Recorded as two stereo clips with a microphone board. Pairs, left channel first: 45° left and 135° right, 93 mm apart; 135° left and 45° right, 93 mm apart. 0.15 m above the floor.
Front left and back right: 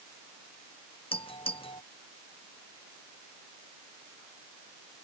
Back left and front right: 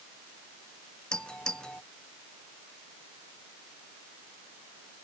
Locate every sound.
1.1 s a doorbell: 55° left